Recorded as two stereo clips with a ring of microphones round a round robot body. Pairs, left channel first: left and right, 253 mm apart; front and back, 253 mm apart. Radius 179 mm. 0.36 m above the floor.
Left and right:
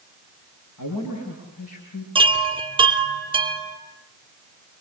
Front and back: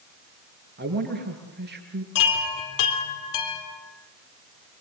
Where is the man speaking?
130° left, 7.5 m.